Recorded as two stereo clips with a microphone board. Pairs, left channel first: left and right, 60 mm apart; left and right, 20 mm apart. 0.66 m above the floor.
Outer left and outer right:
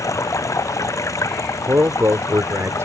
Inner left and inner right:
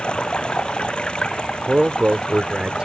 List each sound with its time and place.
0.0 s running water: 60° left (ahead or behind)
1.7 s a man speaking: 55° right (ahead or behind)